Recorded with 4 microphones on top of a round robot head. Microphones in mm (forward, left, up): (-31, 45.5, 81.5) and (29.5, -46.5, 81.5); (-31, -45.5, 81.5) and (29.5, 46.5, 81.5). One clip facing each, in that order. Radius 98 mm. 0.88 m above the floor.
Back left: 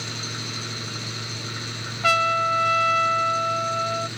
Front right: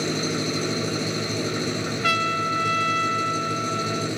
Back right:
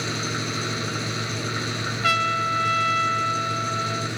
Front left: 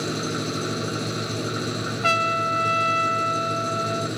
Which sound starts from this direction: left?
A trumpet, at 2.0 s.